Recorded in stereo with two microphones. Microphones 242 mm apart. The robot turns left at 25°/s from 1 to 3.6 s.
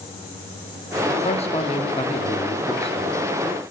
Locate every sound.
1.2 s a man speaking: 25° left (ahead or behind), 0.7 m